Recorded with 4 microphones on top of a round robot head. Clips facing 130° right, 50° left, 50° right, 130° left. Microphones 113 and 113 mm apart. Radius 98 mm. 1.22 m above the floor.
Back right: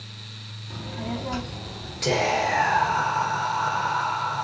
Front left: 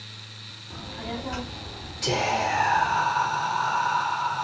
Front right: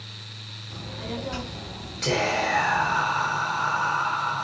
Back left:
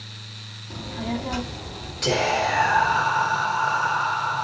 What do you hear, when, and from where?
0.7 s a child speaking: 170° left, 2.5 m
2.0 s whispering: 160° right, 5 m